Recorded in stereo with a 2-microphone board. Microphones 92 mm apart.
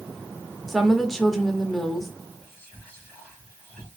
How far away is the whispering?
About 2.5 m.